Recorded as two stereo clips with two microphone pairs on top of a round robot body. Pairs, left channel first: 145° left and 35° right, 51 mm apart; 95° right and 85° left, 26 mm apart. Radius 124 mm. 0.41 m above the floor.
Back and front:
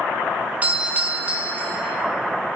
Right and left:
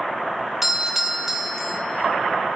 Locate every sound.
0.6 s a doorbell: 20° left, 1.3 m